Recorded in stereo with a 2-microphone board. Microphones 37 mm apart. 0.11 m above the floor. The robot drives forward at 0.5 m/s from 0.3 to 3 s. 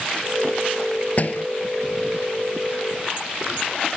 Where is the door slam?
45° left (ahead or behind).